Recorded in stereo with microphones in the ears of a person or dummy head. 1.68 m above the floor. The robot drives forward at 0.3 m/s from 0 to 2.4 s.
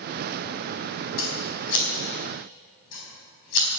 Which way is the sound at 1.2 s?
75° left (ahead or behind).